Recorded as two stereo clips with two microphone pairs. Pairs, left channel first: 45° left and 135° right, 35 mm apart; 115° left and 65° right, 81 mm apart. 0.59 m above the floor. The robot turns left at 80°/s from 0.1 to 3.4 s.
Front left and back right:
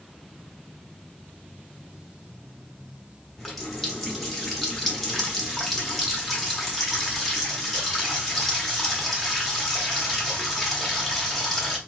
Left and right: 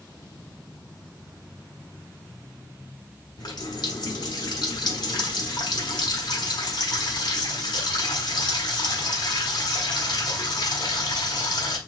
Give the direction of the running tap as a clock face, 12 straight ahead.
8 o'clock.